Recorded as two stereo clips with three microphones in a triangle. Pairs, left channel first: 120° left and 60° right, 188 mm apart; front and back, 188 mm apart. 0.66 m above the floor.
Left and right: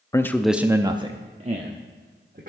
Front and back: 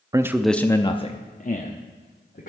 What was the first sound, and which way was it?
A man speaking, 155° left.